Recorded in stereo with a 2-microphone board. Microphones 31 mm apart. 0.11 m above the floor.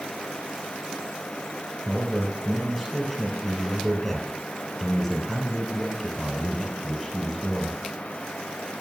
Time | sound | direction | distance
1.9 | a man speaking | 5° right (ahead or behind) | 2 m